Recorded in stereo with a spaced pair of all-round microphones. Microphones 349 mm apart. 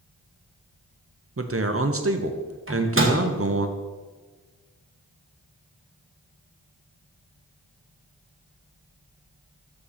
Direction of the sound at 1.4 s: 40° right (ahead or behind).